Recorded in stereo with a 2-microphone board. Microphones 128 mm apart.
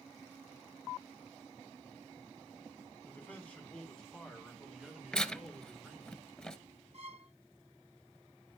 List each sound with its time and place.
3.0 s a man speaking: 15° left (ahead or behind), 2.5 m; by 6.1 s 10° right (ahead or behind), 3.5 m
5.1 s tearing paper: 5° left (ahead or behind), 0.7 m
6.9 s a violin: 50° right (ahead or behind), 0.5 m